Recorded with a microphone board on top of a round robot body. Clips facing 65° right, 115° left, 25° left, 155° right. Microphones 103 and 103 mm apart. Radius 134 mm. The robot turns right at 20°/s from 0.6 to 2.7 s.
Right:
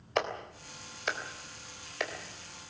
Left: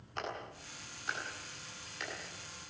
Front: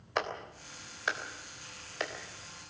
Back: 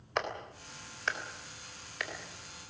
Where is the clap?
65° right, 3.5 m; by 2.1 s 35° right, 3.5 m.